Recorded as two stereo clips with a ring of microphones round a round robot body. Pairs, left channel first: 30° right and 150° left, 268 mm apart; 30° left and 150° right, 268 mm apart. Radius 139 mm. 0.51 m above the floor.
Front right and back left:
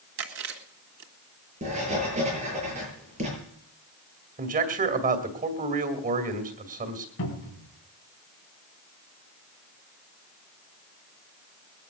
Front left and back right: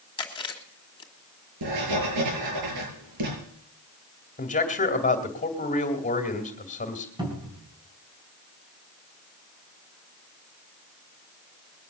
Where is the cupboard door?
75° right, 4 m.